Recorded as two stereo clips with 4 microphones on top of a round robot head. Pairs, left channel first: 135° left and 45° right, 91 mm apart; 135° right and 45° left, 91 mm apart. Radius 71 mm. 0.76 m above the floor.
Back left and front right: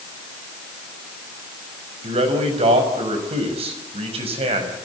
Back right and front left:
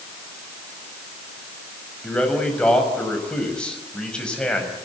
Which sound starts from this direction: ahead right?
A man speaking, at 2.0 s.